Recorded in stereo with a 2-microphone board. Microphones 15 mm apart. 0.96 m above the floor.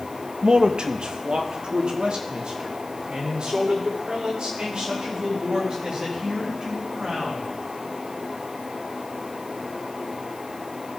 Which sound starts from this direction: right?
A man speaking, at 0.4 s.